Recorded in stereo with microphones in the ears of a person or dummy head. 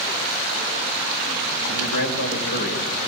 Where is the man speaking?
65° left (ahead or behind), 7 m.